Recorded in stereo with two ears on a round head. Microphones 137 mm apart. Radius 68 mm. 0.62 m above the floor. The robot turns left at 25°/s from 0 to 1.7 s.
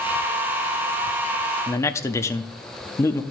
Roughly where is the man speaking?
Centre.